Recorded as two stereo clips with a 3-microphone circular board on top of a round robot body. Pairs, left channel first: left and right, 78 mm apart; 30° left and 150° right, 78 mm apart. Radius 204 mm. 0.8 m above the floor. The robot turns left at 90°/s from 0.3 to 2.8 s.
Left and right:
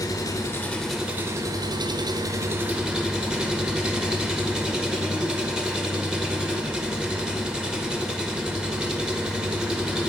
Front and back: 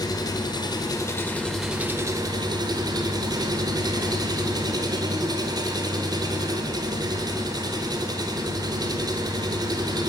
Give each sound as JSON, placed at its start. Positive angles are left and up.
{"t": 0.0, "sound": "an engine running", "azimuth_deg": 55, "distance_m": 1.1}